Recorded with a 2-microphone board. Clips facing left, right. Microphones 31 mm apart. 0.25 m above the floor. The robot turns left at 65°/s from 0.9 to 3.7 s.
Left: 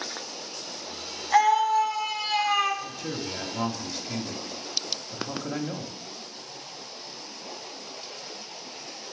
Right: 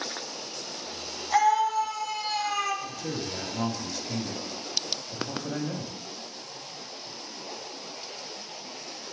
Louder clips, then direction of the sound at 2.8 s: Even; centre (ahead or behind).